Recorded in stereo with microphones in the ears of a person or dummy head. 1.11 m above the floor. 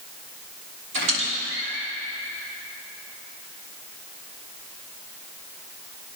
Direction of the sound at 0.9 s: 85° right.